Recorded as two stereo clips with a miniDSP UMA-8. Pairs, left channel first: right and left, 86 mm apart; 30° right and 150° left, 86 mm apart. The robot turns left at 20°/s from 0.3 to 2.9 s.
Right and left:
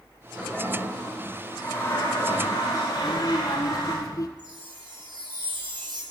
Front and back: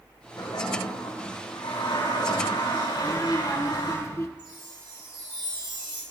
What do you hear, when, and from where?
0.4 s a toilet flushing: 5° left, 9.5 m; by 4.0 s 45° right, 9.5 m
3.0 s a child speaking: 70° right, 1.1 m
4.4 s a chime: 120° left, 8 m